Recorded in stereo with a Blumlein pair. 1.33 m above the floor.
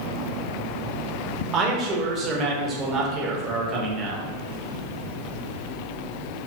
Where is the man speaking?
25° right, 0.7 m.